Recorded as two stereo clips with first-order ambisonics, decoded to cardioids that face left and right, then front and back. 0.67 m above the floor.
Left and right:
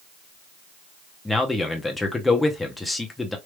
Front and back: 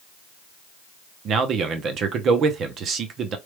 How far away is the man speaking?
About 0.7 m.